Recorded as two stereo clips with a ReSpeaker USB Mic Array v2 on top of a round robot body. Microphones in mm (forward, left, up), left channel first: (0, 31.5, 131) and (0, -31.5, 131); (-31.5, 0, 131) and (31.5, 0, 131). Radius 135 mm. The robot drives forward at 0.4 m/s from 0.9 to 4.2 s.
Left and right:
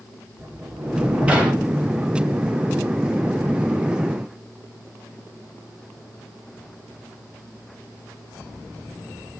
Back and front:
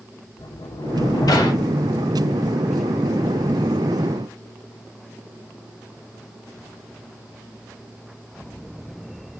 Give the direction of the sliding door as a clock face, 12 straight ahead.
5 o'clock.